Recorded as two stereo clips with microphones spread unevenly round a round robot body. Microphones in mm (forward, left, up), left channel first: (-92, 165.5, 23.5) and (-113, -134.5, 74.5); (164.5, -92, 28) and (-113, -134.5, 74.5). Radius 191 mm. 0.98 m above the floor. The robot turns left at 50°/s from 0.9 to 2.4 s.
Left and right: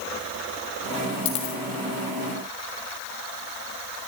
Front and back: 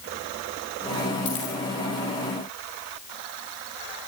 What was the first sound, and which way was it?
A dropped coin, 75° left.